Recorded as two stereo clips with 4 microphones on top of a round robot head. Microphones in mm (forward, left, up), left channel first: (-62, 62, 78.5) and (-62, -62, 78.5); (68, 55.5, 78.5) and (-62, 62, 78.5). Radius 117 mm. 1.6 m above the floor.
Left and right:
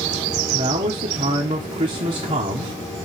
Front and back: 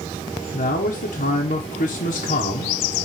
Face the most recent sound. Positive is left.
turn(degrees=-40)